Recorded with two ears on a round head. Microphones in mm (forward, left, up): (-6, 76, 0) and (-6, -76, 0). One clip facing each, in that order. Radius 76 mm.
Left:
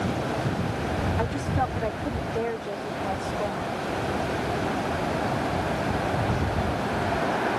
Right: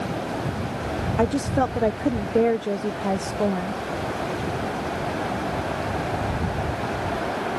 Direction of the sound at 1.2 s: 55° right (ahead or behind).